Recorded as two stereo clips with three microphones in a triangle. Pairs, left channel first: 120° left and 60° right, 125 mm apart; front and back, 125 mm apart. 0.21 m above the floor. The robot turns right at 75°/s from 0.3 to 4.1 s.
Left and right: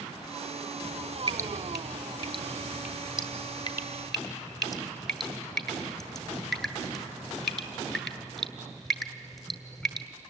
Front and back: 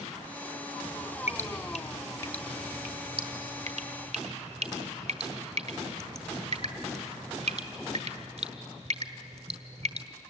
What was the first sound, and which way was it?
Dripping, 5° right.